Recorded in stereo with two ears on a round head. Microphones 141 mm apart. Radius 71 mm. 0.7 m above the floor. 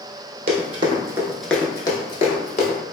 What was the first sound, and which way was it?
Running footsteps, 45° right (ahead or behind).